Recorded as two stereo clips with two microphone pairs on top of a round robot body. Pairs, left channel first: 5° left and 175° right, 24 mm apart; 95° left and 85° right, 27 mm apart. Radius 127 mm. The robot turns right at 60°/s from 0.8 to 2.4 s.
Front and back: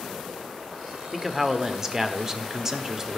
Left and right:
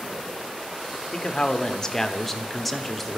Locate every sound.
1.1 s a man speaking: 120° left, 1.1 m; by 3.2 s 160° right, 1.1 m